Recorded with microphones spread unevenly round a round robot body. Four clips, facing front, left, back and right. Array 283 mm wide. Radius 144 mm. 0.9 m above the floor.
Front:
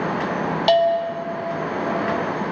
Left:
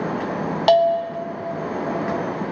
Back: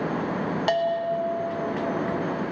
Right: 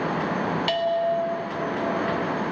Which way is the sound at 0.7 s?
90° left.